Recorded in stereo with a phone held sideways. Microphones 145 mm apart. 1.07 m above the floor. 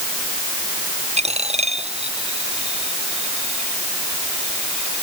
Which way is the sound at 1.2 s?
50° right (ahead or behind).